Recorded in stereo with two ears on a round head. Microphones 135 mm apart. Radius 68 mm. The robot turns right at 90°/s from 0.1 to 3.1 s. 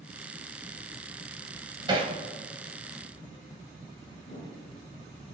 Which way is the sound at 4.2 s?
55° left (ahead or behind).